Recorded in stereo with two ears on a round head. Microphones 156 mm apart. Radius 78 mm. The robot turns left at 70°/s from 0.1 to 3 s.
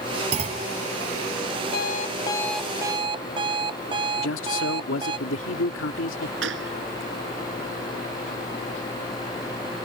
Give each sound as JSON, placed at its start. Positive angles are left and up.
{"t": 0.3, "sound": "a clunk", "side_deg": -35}
{"t": 1.7, "sound": "an alarm clock", "azimuth_deg": 60}
{"t": 4.2, "sound": "a man speaking", "side_deg": 85}
{"t": 6.4, "sound": "a gunshot", "side_deg": -80}